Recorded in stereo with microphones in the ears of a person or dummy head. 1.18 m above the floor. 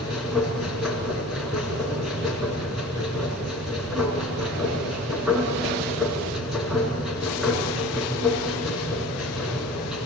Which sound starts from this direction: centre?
A machine running, at 0.0 s.